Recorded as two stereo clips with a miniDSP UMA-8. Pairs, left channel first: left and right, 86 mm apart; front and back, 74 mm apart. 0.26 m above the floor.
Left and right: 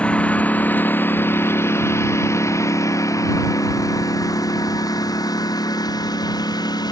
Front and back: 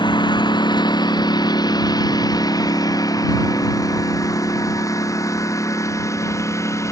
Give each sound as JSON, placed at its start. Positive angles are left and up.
{"t": 0.0, "sound": "a lawn mower", "azimuth_deg": 15}